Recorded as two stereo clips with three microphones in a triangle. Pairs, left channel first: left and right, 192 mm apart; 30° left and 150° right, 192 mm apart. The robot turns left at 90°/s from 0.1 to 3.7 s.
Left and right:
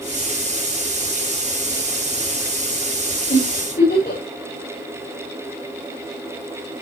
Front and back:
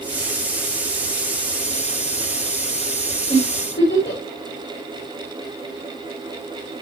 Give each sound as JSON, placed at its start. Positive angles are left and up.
{"t": 3.3, "sound": "a giggle", "azimuth_deg": 90, "distance_m": 9.0}